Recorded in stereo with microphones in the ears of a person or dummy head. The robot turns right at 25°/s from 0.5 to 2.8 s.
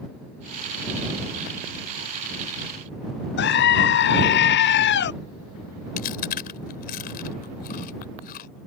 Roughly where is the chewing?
Left.